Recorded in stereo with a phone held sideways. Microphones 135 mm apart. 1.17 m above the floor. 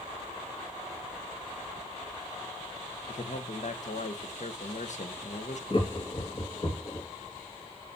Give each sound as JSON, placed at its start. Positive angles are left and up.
{"t": 3.1, "sound": "a man speaking", "side_deg": 60, "distance_m": 1.2}
{"t": 5.7, "sound": "laughter", "side_deg": 40, "distance_m": 2.5}